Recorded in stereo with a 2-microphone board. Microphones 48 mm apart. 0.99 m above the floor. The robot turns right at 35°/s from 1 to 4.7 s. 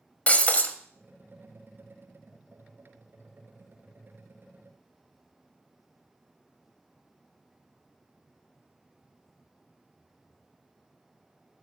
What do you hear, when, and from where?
0.3 s breaking glass: 30° left (ahead or behind), 1.3 m